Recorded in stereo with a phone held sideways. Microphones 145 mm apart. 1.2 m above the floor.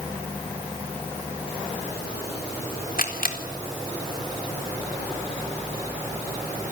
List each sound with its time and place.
3.0 s a camera shutter: 75° left (ahead or behind), 4 m